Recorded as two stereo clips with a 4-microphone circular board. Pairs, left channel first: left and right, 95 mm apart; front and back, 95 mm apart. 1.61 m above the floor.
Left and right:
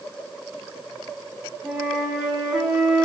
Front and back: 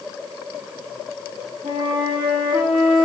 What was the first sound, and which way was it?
A flute, 175° right.